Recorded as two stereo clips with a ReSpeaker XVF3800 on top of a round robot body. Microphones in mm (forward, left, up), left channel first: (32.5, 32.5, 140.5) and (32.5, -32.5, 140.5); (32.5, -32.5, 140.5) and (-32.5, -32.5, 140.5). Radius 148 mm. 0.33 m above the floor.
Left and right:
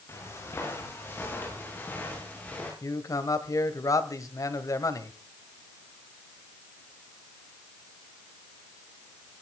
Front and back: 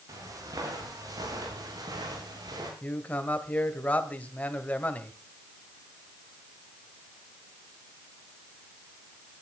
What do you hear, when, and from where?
0.1 s footsteps: 140° left, 10 m; by 2.7 s 160° left, 9 m
2.8 s a man speaking: 65° left, 2 m